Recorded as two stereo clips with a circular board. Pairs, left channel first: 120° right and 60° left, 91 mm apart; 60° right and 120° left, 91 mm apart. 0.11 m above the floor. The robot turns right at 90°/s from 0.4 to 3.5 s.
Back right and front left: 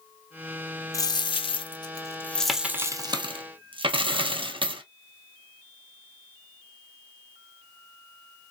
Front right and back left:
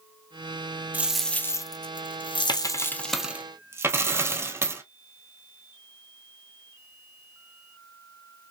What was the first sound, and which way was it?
A dropped coin, 170° right.